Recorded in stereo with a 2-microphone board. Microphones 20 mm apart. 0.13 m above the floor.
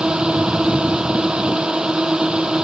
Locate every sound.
0.0 s a drone: 55° right (ahead or behind)